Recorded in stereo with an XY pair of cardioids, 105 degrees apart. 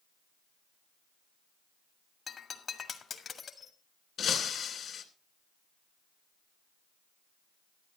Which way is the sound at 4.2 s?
55° left.